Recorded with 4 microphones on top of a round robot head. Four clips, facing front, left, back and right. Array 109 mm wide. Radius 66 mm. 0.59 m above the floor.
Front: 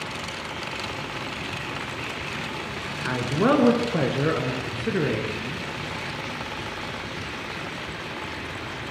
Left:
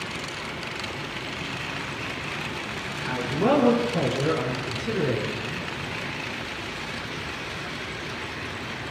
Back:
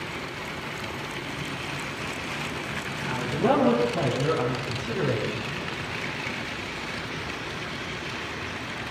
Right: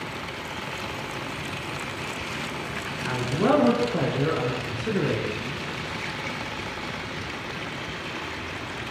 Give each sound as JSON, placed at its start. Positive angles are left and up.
{"t": 3.0, "sound": "a man speaking", "azimuth_deg": -20, "distance_m": 7.0}